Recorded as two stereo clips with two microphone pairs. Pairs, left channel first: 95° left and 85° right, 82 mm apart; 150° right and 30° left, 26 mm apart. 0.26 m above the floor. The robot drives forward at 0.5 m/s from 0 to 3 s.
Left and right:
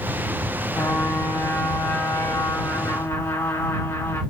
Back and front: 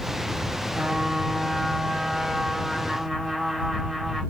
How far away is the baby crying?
No baby crying in this recording.